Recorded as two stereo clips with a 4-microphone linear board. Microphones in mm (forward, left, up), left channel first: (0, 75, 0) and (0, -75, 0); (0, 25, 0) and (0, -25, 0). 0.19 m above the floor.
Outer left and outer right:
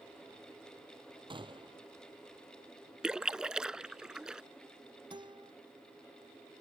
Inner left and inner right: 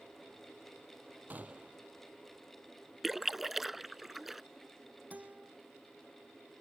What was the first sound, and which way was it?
A gunshot, 35° right (ahead or behind).